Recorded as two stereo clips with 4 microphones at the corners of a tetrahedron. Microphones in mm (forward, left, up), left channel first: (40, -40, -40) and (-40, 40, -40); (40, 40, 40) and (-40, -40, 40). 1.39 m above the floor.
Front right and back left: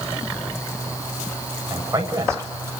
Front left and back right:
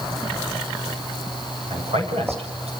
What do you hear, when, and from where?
1.7 s a man speaking: 160° right, 7.5 m